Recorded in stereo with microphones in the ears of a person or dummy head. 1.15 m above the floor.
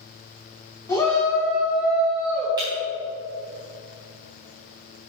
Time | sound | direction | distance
0.9 | a shout | 15° left (ahead or behind) | 3 m
2.6 | breaking glass | 25° right (ahead or behind) | 3.5 m